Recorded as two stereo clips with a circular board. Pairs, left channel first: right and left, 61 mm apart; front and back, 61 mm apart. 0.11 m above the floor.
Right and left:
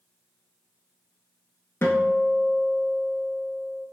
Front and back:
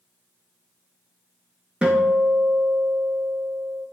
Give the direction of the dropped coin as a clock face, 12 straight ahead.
No dropped coin in this recording.